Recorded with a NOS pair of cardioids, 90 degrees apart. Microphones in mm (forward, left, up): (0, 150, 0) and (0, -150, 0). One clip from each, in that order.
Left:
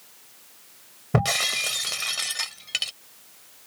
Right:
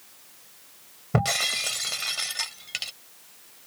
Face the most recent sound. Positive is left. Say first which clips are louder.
# left 2 dB
turn(degrees=30)